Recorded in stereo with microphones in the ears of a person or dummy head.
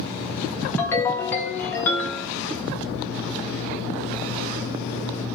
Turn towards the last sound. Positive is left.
turn(degrees=15)  # may be behind; listen again after turning